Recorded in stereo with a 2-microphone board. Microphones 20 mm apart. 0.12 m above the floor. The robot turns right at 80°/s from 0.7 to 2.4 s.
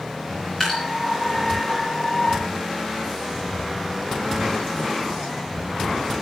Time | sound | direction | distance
0.6 | dripping | 25° left (ahead or behind) | 9 m